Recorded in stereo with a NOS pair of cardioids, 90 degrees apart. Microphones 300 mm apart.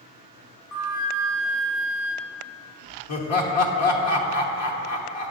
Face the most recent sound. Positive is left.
turn(degrees=55)